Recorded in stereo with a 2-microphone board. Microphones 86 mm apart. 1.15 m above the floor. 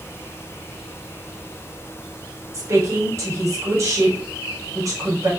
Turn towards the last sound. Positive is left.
turn(degrees=-40)  # may be behind; listen again after turning